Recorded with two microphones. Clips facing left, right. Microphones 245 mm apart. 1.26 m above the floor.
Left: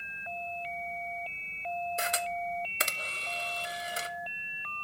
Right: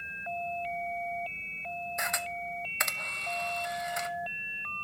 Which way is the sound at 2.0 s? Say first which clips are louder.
Left 4 dB; 35° left (ahead or behind).